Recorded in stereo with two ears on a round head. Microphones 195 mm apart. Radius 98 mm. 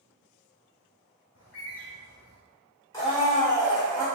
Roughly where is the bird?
Left.